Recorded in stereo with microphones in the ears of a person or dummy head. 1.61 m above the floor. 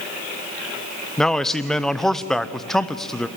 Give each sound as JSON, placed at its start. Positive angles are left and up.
{"t": 1.2, "sound": "a man speaking", "side_deg": 10, "distance_m": 0.6}